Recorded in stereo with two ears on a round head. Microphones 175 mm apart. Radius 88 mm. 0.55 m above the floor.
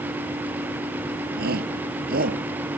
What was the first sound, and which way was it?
A shout, 60° right (ahead or behind).